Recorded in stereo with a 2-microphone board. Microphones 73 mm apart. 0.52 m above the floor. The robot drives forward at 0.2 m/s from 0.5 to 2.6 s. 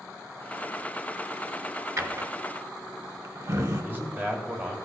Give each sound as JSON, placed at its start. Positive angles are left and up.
{"t": 2.0, "sound": "a drawer", "side_deg": -45, "distance_m": 1.1}
{"t": 3.7, "sound": "a man speaking", "side_deg": -30, "distance_m": 2.0}